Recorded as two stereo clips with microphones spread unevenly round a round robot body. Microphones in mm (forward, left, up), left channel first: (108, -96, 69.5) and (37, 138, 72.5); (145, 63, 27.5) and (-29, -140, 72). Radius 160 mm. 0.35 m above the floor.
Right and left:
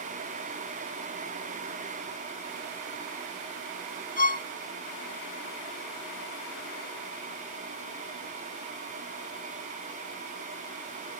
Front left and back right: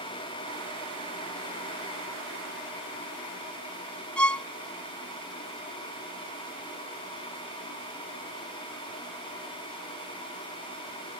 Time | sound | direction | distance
4.2 | a violin | 30° right | ?